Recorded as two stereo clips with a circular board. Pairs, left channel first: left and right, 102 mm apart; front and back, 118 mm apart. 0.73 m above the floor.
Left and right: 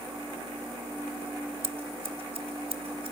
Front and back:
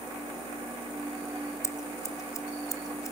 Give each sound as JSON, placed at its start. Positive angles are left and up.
{"t": 1.6, "sound": "scissors", "azimuth_deg": -65, "distance_m": 1.8}